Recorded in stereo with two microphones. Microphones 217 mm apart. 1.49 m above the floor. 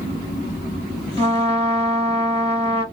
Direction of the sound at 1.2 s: 25° right (ahead or behind).